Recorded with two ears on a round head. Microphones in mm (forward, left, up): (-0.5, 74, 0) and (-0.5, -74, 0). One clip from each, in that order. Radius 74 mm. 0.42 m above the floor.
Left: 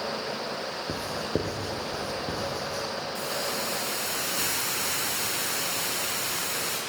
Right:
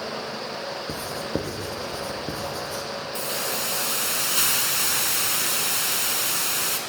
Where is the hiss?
70° right (ahead or behind), 5 m.